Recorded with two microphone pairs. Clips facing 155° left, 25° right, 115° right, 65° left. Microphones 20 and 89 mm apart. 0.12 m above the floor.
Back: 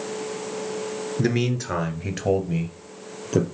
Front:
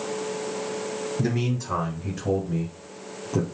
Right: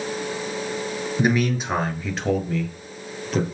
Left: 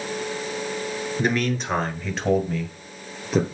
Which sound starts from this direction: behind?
A man speaking, at 1.2 s.